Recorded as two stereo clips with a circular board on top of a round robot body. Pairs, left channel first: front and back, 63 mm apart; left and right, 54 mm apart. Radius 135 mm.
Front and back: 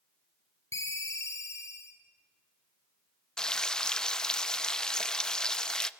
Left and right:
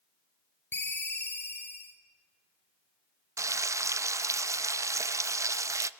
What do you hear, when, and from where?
0.7 s a ringtone: 40° left, 2 m
3.4 s frying: 80° right, 0.5 m